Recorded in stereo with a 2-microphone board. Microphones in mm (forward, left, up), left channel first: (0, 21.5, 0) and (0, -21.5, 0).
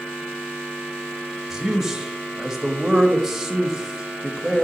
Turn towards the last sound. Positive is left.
turn(degrees=-10)  # may be behind; listen again after turning